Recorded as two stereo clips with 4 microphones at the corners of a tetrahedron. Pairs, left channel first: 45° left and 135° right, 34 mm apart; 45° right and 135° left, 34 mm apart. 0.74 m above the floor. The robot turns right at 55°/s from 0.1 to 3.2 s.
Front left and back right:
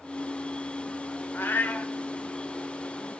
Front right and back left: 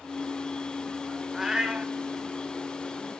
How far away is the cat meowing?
About 0.9 m.